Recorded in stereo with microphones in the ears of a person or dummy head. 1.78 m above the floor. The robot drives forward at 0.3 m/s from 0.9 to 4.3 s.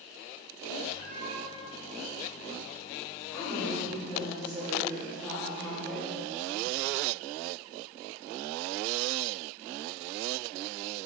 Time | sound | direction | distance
1.0 | a cat meowing | 10° right (ahead or behind) | 1.5 m
3.3 | a woman speaking | 10° left (ahead or behind) | 1.8 m